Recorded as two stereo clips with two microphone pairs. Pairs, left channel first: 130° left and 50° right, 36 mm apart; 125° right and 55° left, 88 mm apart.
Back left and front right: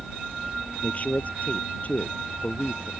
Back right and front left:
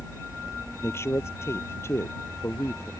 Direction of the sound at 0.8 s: 175° left.